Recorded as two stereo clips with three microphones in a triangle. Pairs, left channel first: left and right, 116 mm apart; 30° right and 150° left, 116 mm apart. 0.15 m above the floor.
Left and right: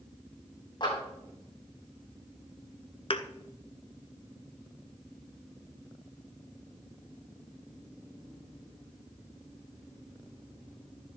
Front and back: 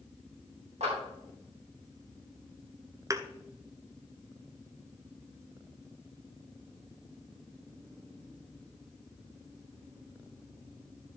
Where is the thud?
100° left, 0.8 m.